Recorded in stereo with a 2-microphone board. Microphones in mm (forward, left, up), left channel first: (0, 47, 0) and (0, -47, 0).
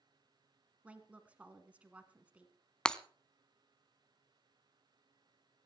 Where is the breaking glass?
10° left (ahead or behind), 0.6 m.